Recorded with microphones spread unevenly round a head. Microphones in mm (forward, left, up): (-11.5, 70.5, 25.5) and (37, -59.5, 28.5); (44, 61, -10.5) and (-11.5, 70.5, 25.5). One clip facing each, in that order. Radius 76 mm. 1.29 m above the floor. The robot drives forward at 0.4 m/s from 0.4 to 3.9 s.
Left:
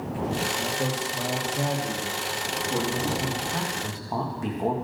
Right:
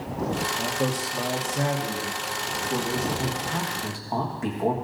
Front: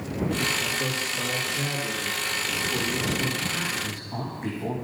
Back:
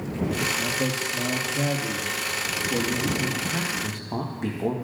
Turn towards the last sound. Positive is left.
turn(degrees=-160)